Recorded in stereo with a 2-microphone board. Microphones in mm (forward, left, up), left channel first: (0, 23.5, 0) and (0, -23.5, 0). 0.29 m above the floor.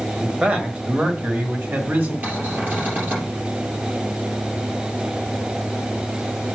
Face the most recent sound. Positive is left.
turn(degrees=-35)  # may be behind; listen again after turning